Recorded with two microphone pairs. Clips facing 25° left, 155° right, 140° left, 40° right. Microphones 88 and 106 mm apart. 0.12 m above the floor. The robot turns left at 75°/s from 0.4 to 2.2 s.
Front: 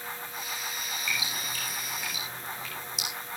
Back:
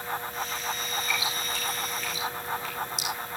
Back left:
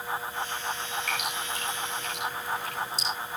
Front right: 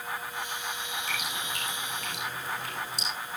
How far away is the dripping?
About 9.5 m.